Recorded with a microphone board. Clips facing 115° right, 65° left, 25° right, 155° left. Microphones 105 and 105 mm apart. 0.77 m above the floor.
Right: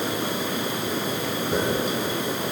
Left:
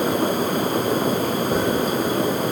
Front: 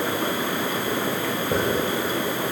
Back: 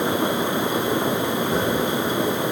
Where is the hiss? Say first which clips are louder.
Left 2 dB, front 2 dB; 25° left, 2.5 m.